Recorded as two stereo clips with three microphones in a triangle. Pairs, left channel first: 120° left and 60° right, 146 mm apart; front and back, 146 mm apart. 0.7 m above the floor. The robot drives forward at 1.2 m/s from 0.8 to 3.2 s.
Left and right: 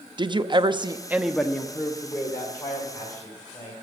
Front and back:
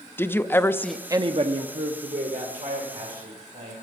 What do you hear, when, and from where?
0.2 s a woman speaking: 65° right, 0.6 m; by 3.7 s 175° right, 3 m